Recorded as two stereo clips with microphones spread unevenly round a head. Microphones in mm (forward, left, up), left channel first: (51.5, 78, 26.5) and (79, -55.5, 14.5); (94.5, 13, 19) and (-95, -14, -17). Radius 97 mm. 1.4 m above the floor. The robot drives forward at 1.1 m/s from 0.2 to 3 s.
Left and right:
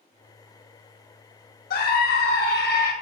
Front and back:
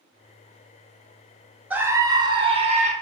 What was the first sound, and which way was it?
A scream, 105° left.